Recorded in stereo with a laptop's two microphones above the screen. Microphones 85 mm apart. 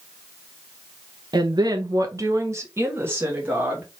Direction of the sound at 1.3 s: 65° right (ahead or behind).